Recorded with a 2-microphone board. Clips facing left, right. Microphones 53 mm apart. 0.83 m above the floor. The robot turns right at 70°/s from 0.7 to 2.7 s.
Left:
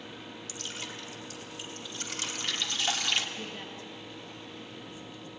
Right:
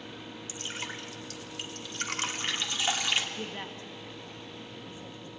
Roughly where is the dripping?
Right.